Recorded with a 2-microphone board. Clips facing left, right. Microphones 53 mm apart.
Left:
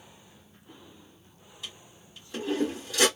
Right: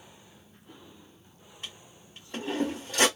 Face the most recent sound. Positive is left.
turn(degrees=-45)  # may be behind; listen again after turning